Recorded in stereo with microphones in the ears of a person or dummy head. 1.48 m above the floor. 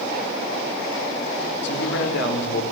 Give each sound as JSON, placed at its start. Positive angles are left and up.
{"t": 1.6, "sound": "a man speaking", "side_deg": 70, "distance_m": 5.0}